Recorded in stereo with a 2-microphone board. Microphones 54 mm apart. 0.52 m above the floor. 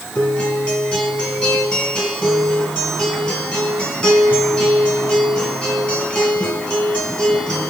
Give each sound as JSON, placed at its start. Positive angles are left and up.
{"t": 0.1, "sound": "a guitar", "side_deg": 20, "distance_m": 3.5}